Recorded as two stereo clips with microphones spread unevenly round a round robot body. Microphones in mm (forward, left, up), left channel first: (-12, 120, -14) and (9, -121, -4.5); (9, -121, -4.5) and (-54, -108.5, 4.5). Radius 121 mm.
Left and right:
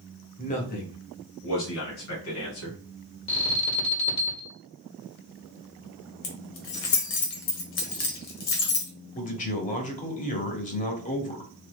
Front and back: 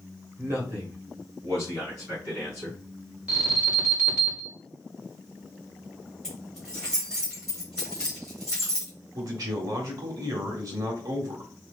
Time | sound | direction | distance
0.4 | a man speaking | 140° left | 1.5 m
3.3 | an alarm | 95° left | 1.5 m
6.2 | keys jangling | 80° left | 1.3 m
9.2 | a man speaking | 145° left | 1.3 m